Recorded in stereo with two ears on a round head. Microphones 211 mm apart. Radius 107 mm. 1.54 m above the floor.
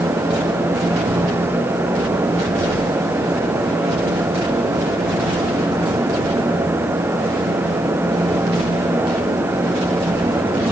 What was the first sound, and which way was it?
Only background noise.